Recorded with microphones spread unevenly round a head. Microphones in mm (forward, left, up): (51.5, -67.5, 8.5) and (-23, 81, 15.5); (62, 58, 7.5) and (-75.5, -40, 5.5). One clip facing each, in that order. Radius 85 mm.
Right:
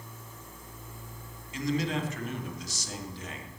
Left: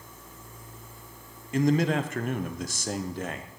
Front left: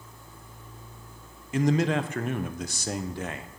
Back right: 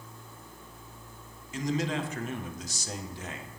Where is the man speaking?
75° left, 0.6 m.